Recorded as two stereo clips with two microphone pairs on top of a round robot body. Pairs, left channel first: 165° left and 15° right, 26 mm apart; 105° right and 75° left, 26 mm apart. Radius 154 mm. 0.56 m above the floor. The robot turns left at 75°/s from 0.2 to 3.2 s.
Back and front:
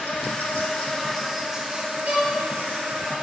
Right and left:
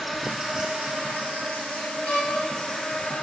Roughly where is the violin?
Ahead left.